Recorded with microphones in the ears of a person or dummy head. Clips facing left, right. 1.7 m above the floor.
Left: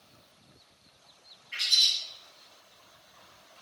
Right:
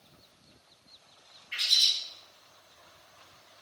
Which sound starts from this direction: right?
A bird, at 1.5 s.